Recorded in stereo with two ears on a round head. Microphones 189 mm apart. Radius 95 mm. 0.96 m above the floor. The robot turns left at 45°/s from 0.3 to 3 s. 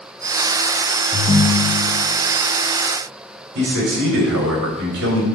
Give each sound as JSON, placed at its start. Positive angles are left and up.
{"t": 1.1, "sound": "a ringtone", "azimuth_deg": 155, "distance_m": 0.6}
{"t": 3.5, "sound": "a man speaking", "side_deg": -55, "distance_m": 3.0}